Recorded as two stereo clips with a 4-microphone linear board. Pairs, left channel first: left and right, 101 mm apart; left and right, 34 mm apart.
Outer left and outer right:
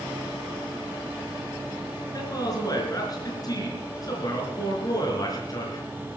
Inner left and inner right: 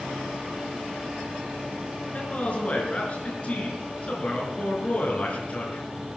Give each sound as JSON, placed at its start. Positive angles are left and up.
{"t": 2.1, "sound": "a man speaking", "side_deg": 40, "distance_m": 4.5}